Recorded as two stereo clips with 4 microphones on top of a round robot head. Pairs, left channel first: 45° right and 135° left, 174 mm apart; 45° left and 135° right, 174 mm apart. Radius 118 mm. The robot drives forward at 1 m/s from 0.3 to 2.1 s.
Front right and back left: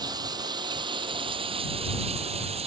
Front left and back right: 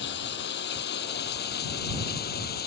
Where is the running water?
65° left; by 2.7 s 80° left.